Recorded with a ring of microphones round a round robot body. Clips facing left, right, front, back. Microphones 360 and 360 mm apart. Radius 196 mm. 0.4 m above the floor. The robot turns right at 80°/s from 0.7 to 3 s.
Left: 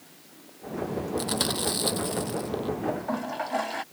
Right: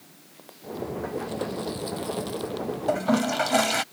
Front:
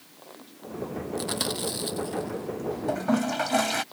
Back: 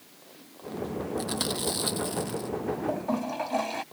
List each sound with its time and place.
1.2 s chewing: 60° left; by 2.5 s 170° left
2.9 s a toilet flushing: 65° right; by 3.8 s 55° right